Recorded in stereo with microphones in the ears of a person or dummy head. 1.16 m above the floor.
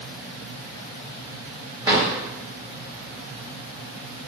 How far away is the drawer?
About 1.3 m.